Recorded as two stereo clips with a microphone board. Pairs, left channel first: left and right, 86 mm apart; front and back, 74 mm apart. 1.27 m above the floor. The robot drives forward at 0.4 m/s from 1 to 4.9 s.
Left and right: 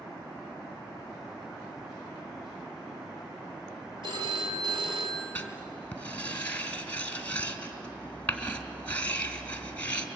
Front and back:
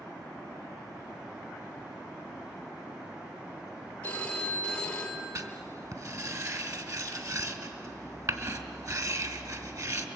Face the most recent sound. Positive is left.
turn(degrees=160)